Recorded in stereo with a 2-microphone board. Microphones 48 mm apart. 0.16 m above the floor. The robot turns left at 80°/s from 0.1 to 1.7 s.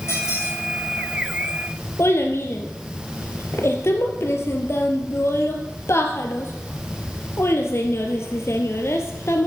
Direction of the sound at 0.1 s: 115° left.